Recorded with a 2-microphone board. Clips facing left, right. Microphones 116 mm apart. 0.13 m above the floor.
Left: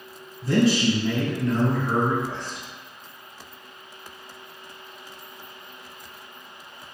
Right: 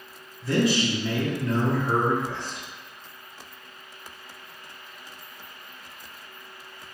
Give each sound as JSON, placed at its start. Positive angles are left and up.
{"t": 0.4, "sound": "a man speaking", "side_deg": 35, "distance_m": 1.7}